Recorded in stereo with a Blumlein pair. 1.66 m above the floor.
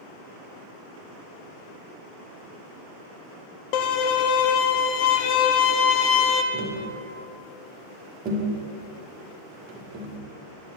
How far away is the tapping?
About 1.4 m.